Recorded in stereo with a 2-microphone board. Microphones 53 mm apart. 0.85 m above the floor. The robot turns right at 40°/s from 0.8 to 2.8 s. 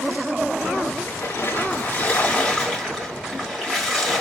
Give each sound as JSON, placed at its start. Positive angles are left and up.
{"t": 1.1, "sound": "a splash", "azimuth_deg": 105, "distance_m": 1.3}